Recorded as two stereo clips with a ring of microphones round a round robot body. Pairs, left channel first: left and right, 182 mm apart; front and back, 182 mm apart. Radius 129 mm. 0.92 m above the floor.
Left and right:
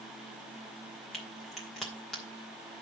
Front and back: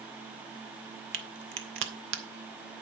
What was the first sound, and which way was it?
A crack, straight behind.